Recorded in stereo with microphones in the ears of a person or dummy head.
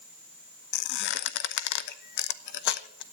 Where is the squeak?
65° left (ahead or behind), 0.8 m.